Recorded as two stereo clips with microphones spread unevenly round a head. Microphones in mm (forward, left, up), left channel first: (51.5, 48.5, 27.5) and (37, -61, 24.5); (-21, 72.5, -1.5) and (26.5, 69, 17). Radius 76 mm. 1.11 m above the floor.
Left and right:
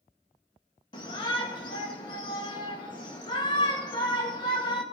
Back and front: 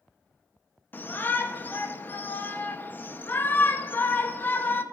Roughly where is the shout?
Behind left.